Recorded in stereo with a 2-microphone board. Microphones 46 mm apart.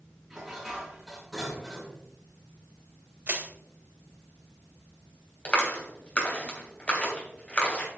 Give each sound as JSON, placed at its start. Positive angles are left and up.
{"t": 0.3, "sound": "dishes clattering", "side_deg": -5, "distance_m": 5.0}
{"t": 3.3, "sound": "crushing", "side_deg": -40, "distance_m": 2.0}
{"t": 5.5, "sound": "a clap", "side_deg": 30, "distance_m": 2.5}